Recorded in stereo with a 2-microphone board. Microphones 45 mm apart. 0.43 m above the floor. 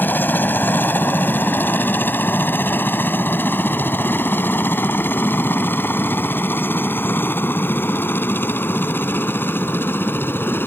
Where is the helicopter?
45° left (ahead or behind); by 10.7 s 50° left (ahead or behind).